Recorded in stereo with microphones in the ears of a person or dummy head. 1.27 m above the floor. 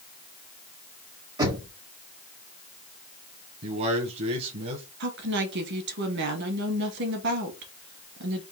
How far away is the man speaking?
About 0.9 m.